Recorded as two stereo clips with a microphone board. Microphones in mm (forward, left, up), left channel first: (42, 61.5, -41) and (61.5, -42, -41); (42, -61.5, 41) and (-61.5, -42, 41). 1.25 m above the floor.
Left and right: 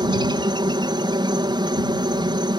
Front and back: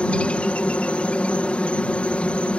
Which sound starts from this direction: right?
A helicopter, at 0.0 s.